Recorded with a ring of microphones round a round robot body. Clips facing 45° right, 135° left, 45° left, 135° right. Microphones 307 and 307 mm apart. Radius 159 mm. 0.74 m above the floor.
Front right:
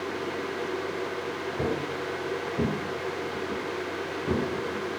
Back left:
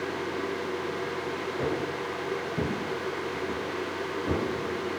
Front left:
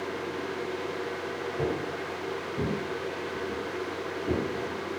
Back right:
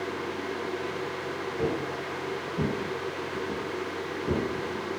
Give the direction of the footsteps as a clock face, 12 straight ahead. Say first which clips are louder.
Front right 1 dB, back right 1 dB; 1 o'clock.